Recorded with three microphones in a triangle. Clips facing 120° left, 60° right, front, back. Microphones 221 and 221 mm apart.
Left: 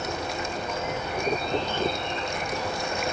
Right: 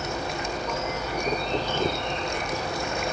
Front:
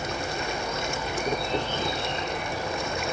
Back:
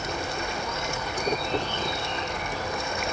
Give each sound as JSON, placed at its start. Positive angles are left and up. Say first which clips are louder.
{"t": 0.0, "sound": "an insect", "louder": "right 1 dB, front 1 dB", "azimuth_deg": -65, "distance_m": 8.5}